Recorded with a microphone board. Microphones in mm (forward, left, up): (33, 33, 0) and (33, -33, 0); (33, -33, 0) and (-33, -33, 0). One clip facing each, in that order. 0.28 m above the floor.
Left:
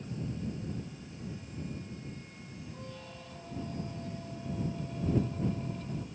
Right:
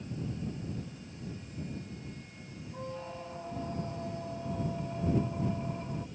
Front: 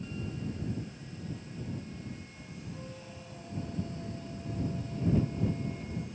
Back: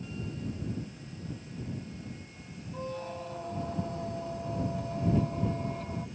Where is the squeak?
150° right.